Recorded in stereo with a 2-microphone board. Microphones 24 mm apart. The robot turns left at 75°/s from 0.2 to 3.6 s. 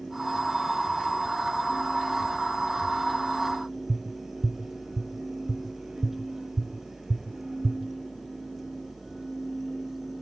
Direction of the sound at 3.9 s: 25° right (ahead or behind).